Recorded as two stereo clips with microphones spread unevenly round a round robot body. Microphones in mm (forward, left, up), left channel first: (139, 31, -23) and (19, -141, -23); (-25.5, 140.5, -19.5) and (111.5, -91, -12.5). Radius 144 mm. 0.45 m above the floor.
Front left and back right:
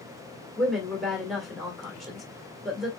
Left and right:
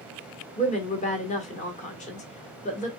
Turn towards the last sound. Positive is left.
turn(degrees=145)